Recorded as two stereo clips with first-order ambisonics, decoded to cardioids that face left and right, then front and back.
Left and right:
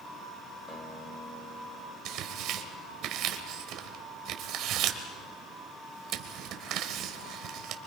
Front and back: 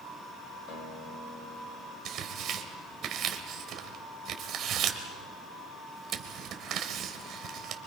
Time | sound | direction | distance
0.7 | a guitar | 15° left | 3.5 m
2.0 | tearing paper | 130° right | 1.5 m